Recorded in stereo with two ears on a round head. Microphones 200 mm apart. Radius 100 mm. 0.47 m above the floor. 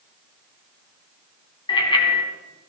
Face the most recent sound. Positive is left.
turn(degrees=20)  # may be behind; listen again after turning